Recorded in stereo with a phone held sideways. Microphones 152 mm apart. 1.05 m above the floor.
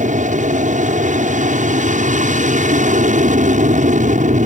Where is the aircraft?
50° right (ahead or behind).